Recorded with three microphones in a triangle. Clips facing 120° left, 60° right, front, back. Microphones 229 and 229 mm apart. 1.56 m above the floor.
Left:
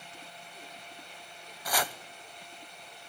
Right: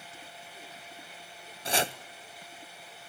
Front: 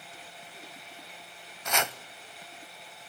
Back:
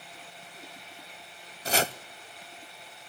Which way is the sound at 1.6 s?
120° right.